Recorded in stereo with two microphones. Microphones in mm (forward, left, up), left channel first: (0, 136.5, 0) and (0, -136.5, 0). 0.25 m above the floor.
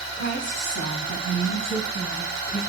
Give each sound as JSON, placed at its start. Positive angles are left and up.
{"t": 0.1, "sound": "a woman speaking", "side_deg": 40, "distance_m": 1.3}